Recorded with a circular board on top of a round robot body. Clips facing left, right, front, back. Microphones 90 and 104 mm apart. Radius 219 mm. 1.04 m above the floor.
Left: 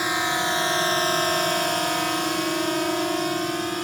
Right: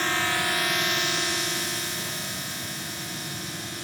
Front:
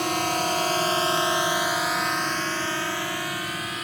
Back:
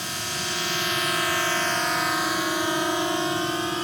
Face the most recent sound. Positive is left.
turn(degrees=120)